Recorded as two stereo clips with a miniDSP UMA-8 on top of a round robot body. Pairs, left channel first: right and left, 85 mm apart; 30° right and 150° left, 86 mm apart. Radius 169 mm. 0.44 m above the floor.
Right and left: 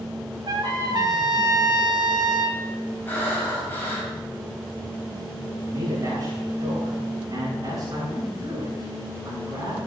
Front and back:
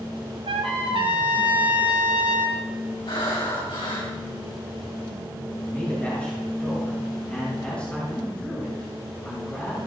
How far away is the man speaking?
About 6.5 m.